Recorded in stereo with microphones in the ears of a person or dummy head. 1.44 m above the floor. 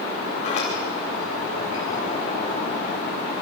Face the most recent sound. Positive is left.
turn(degrees=30)  # may be behind; listen again after turning